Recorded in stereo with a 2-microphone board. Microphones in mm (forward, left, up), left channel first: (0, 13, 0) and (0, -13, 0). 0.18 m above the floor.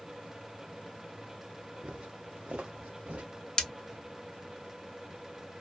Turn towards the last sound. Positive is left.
turn(degrees=35)  # may be behind; listen again after turning